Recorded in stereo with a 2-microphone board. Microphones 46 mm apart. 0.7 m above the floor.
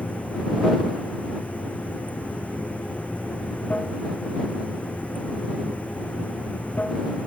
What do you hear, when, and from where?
0.0 s running water: 30° left (ahead or behind)